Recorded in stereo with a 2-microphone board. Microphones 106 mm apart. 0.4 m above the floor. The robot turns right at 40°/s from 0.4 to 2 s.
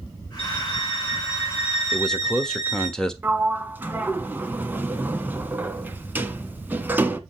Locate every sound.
0.4 s a violin: 65° left, 4.5 m; by 2.9 s 130° left, 4.5 m
1.9 s a man speaking: 5° left (ahead or behind), 1.3 m
3.2 s a sliding door: 15° right (ahead or behind), 1.1 m